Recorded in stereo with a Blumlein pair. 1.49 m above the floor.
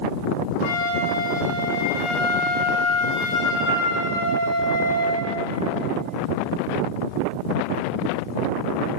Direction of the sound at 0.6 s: 45° left.